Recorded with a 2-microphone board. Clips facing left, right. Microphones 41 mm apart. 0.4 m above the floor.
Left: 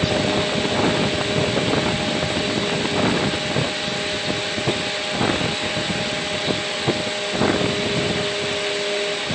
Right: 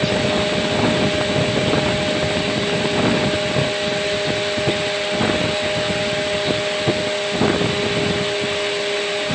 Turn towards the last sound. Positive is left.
No sound to turn to.